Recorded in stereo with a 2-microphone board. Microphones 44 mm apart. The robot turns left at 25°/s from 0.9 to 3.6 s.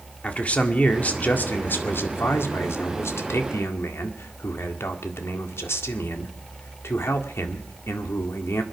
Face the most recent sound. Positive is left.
turn(degrees=80)